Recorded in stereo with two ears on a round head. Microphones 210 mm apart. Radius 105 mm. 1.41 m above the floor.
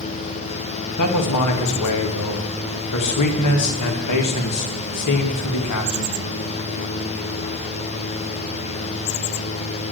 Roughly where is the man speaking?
Left.